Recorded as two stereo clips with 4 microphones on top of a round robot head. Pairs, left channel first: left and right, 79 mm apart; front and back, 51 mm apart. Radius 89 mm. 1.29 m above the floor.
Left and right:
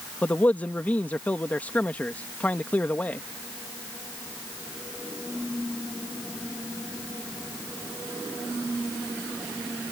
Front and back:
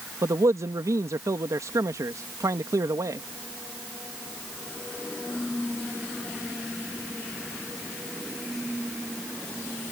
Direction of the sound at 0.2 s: 160° left.